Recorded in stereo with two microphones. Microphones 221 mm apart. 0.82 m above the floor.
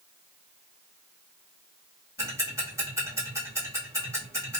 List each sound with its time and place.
2.2 s ticking: 15° right (ahead or behind), 1.5 m